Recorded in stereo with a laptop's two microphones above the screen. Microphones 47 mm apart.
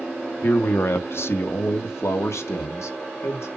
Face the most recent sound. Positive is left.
turn(degrees=80)